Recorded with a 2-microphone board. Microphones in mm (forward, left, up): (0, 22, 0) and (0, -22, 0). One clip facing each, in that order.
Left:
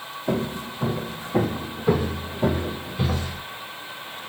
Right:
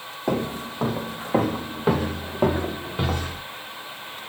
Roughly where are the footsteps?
Right.